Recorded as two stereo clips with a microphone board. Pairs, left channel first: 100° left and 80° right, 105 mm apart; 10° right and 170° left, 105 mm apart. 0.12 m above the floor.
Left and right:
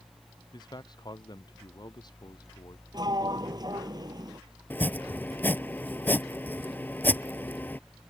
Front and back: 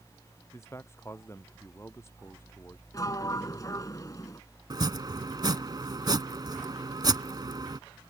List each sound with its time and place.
0.5 s a man speaking: 55° left
2.9 s a sliding door: 55° right
4.7 s chopping: 160° left